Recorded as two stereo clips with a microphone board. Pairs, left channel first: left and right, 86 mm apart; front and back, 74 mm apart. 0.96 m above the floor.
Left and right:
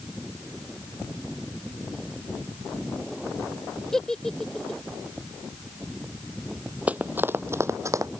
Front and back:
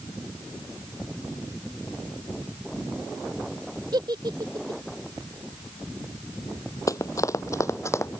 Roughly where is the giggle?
Behind.